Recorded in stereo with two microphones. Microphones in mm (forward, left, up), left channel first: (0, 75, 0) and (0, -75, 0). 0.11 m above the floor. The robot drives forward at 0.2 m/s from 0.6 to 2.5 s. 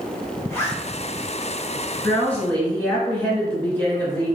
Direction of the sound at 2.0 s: 15° left (ahead or behind).